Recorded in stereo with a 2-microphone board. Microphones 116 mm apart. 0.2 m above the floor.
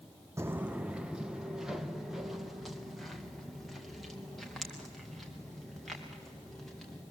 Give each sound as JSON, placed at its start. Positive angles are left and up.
{"t": 0.4, "sound": "footsteps", "side_deg": -25, "distance_m": 0.5}